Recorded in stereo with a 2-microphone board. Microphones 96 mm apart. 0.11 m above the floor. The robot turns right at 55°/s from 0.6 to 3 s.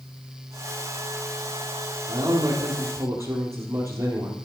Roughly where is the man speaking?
Right.